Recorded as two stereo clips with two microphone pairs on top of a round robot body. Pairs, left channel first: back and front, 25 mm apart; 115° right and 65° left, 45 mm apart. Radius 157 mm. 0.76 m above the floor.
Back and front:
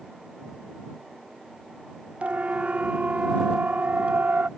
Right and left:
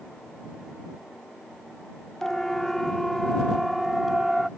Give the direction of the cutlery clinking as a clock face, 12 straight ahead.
I don't hear cutlery clinking.